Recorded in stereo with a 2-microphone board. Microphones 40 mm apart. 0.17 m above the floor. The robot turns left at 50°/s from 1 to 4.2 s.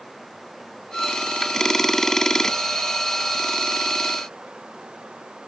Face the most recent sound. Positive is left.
turn(degrees=-160)